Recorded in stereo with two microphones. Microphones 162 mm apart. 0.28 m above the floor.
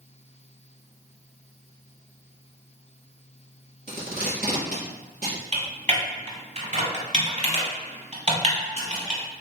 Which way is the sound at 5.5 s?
45° right (ahead or behind).